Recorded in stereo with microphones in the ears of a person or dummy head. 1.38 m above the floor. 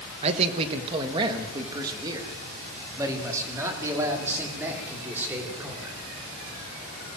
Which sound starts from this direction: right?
A man speaking, at 0.2 s.